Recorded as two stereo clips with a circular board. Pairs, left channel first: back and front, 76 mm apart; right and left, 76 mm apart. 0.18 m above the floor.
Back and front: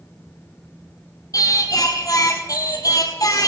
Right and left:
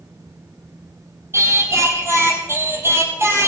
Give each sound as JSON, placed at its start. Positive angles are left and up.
{"t": 1.3, "sound": "singing", "azimuth_deg": 145, "distance_m": 1.8}